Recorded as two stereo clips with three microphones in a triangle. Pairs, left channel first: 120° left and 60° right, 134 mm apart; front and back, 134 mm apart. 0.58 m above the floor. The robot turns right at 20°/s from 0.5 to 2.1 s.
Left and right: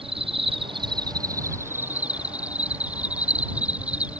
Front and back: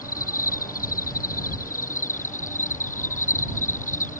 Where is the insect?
10° right; by 4.2 s 20° left.